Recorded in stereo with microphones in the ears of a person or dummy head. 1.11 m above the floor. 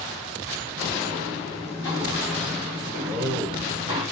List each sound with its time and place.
0.8 s footsteps: 45° left (ahead or behind), 1.5 m; by 4.0 s 35° right (ahead or behind), 1.4 m
3.0 s a man speaking: 50° right (ahead or behind), 1.3 m